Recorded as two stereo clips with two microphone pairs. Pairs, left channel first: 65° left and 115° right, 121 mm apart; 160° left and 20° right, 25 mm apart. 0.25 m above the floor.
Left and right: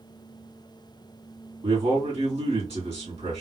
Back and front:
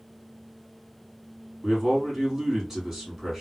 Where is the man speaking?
90° right, 3 m.